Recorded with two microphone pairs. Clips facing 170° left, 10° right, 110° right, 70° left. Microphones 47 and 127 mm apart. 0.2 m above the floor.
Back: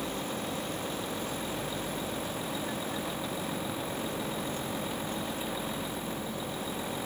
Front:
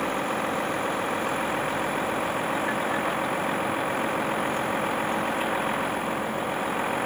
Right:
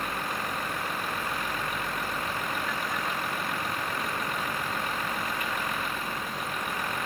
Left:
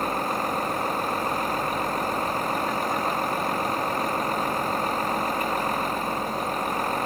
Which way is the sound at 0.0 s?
20° left.